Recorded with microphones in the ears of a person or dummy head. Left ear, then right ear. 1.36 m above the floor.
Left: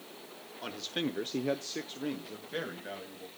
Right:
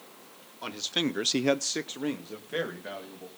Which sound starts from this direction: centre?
A man speaking, at 0.6 s.